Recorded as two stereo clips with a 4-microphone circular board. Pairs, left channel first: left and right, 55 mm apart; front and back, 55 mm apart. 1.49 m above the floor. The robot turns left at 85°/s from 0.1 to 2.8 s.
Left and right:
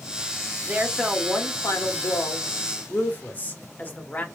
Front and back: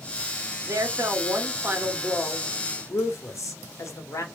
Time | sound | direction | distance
0.7 | a woman speaking | 150° right | 1.2 m